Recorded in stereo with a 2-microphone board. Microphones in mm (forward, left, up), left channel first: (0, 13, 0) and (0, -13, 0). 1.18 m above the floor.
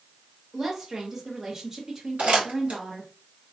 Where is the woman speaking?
25° right (ahead or behind), 1.4 m.